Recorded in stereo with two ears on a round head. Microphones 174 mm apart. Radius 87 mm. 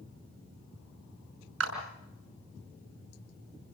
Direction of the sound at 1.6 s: 90° right.